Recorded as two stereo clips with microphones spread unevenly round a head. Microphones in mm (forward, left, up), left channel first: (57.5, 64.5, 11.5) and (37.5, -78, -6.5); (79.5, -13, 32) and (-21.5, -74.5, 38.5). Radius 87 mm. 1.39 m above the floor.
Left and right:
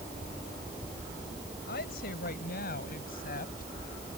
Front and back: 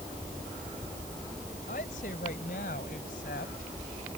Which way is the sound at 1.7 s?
75° left.